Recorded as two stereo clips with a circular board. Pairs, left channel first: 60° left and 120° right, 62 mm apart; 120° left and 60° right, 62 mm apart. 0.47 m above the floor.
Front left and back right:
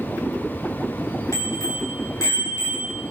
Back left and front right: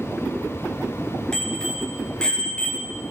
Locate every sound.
1.3 s a bicycle bell: 40° left, 5 m; by 3.0 s 50° left, 4 m